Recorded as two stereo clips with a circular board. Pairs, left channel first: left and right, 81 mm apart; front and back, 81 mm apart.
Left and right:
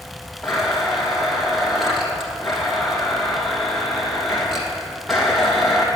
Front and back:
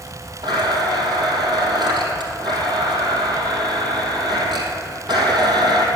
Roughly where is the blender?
Behind.